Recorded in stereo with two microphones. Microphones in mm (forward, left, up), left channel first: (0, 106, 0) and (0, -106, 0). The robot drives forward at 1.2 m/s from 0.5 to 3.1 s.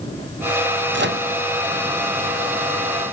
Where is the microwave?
60° right (ahead or behind), 1.2 m; by 1.3 s 50° right (ahead or behind), 1.4 m.